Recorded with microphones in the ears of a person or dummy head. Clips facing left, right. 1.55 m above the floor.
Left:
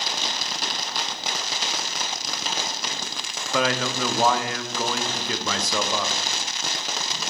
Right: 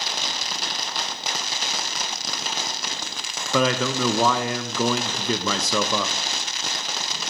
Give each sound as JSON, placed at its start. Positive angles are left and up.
{"t": 3.5, "sound": "a man speaking", "side_deg": -75, "distance_m": 0.7}